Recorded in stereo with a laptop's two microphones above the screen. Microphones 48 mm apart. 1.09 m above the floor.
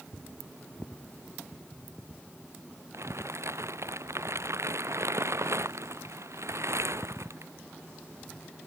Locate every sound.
2.9 s crumpling: 75° right (ahead or behind)